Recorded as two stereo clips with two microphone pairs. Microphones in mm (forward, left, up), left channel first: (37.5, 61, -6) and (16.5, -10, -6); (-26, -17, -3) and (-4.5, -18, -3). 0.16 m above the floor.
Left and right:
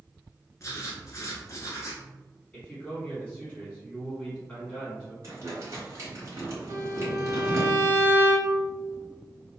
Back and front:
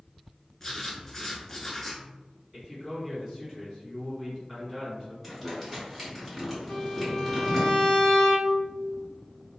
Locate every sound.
0.6 s writing: 105° left, 0.7 m
2.5 s a man speaking: 40° left, 1.5 m
5.2 s crumpling: 85° right, 1.9 m
6.7 s a violin: 120° right, 0.7 m